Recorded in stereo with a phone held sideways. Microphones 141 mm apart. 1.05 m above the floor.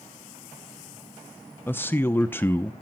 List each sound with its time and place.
1.7 s a man speaking: 15° left (ahead or behind), 0.7 m